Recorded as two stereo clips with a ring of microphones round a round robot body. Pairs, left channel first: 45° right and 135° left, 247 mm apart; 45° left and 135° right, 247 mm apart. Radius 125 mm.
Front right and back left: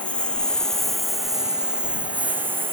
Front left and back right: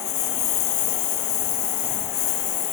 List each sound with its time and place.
0.0 s a lawn mower: 40° left; by 2.8 s 55° left